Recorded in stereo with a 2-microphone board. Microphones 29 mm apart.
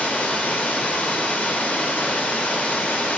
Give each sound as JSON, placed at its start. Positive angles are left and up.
{"t": 0.0, "sound": "running water", "side_deg": 80, "distance_m": 0.8}